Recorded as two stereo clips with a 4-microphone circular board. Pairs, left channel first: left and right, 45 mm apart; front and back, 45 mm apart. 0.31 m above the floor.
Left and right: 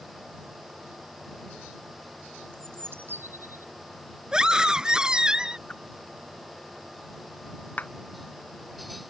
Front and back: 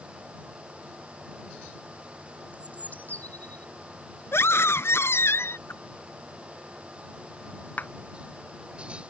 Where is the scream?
15° right.